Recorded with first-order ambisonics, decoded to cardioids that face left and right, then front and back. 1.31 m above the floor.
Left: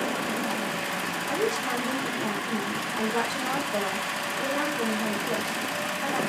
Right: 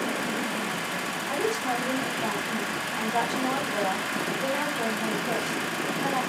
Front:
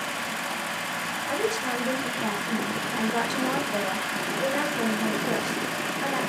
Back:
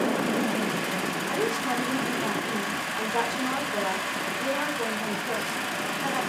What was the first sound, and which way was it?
A woman speaking, 15° left.